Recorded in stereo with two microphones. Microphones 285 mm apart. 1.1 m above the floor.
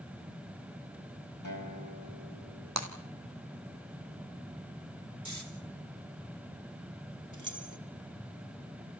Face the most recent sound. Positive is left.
turn(degrees=-80)